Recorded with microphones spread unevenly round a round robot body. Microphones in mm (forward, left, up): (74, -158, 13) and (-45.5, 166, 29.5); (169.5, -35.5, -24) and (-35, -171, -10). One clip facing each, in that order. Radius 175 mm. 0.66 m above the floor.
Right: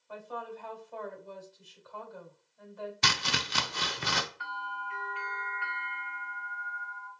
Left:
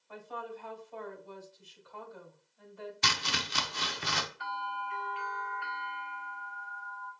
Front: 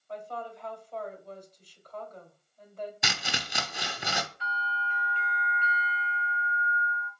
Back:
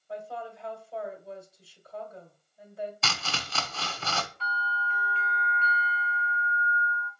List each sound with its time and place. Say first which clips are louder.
0.1 s a woman speaking: right 1 dB, back 1 dB; 65° right, 2.5 m
3.0 s chopping: right 2 dB, front 1 dB; 45° right, 0.7 m
4.4 s a bell: left 3 dB, back 1 dB; 40° right, 3 m